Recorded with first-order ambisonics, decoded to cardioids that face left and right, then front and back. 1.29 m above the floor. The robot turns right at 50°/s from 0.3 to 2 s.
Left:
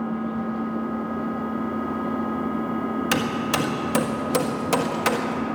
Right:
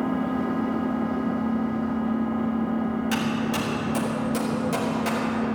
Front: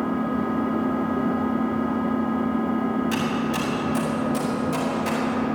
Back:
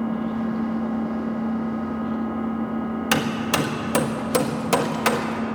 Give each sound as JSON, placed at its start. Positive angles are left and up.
{"t": 0.0, "sound": "an engine running", "azimuth_deg": -35, "distance_m": 2.0}
{"t": 3.1, "sound": "hammering", "azimuth_deg": 140, "distance_m": 1.5}